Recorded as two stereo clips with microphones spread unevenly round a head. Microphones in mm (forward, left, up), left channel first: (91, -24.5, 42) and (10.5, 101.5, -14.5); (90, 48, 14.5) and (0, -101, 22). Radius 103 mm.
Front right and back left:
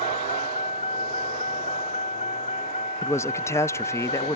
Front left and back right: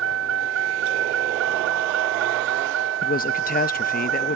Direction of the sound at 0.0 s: 120° right.